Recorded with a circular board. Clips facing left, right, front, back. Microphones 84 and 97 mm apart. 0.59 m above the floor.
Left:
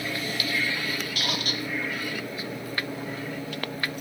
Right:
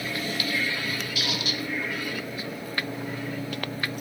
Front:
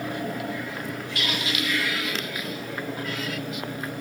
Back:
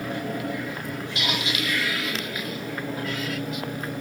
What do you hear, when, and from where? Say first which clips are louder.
1.1 s a squeak: even, even; 115° left, 0.7 m